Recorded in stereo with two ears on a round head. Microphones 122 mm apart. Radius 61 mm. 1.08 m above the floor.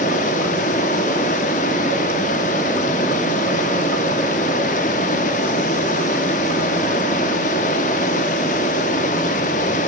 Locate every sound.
0.0 s running water: 60° left (ahead or behind), 2 m